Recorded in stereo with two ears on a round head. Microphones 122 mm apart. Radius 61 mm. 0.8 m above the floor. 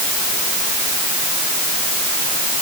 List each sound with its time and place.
Only background noise.